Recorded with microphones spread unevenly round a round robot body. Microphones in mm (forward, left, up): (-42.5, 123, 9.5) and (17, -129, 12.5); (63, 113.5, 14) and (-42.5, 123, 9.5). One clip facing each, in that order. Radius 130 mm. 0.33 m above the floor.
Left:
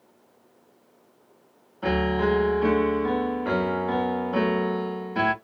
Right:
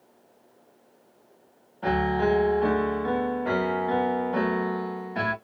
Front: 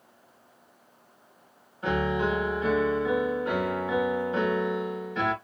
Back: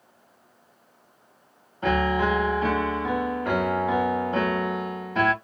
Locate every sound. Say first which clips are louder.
1.8 s a piano: left 1 dB, back 4 dB; straight behind, 0.7 m